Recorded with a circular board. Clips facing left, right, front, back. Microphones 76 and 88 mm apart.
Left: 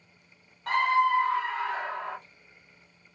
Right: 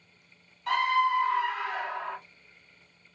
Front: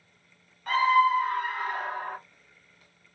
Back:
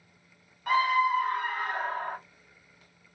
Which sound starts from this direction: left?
A scream, at 0.7 s.